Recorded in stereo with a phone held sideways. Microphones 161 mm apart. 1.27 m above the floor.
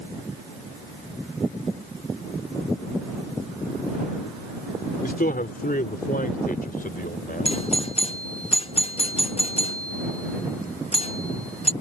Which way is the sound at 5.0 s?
70° left (ahead or behind).